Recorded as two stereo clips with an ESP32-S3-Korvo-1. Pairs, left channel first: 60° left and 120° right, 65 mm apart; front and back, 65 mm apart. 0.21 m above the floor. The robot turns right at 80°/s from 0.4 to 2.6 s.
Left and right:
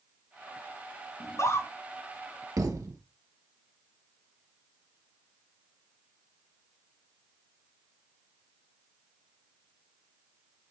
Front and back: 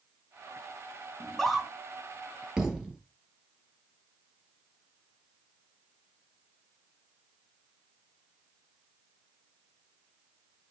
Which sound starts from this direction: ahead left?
A scream, at 1.2 s.